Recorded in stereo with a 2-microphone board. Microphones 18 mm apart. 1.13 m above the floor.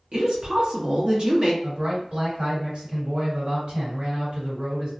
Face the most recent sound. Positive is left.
turn(degrees=-65)  # may be behind; listen again after turning